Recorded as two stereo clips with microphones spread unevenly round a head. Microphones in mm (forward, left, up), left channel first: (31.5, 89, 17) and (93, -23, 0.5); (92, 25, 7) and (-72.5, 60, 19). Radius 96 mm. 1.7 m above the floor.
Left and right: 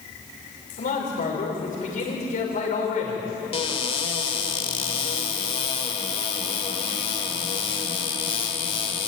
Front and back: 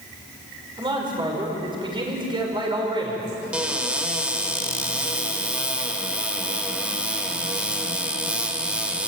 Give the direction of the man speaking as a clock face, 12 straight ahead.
8 o'clock.